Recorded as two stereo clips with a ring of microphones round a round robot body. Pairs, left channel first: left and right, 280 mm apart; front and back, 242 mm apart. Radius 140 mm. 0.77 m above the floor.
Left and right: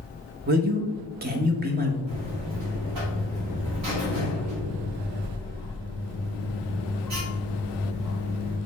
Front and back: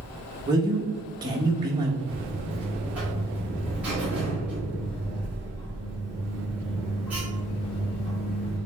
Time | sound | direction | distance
0.5 | a man speaking | 120° right | 0.6 m
2.1 | a buzzer | 95° right | 1.4 m